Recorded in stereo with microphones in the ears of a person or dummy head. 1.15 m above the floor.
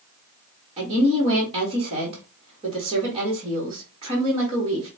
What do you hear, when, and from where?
0.8 s a woman speaking: 30° right (ahead or behind), 1.5 m